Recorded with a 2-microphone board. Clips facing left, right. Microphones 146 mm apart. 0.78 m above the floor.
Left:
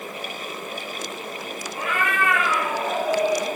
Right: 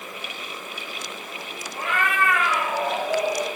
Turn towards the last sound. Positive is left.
turn(degrees=-20)  # may be behind; listen again after turning